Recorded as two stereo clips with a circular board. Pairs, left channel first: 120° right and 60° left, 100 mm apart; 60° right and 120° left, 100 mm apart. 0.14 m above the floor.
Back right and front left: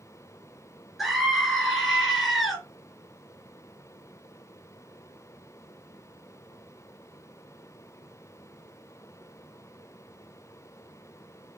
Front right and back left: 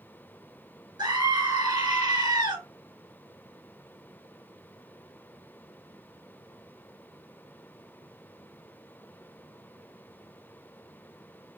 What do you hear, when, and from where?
1.0 s a scream: 145° left, 1.9 m